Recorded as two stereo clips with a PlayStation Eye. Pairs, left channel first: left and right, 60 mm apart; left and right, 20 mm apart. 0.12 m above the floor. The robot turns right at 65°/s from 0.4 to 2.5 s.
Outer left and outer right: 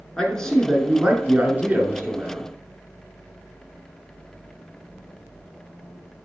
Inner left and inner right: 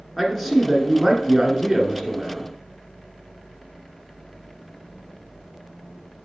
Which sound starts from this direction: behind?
A man speaking, at 0.2 s.